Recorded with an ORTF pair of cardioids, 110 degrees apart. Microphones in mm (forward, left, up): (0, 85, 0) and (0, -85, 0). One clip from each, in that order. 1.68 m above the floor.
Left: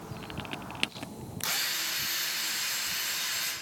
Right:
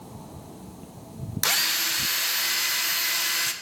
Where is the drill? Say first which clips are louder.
Right 7 dB; 50° right, 1.4 m.